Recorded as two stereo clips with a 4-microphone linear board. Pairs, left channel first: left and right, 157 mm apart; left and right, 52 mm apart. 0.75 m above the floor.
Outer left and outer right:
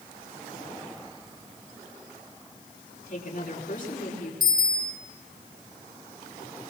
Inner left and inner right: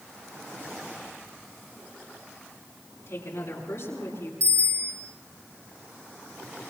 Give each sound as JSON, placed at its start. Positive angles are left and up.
{"t": 3.1, "sound": "a woman speaking", "side_deg": 55, "distance_m": 8.0}
{"t": 4.4, "sound": "a bicycle bell", "side_deg": -75, "distance_m": 9.0}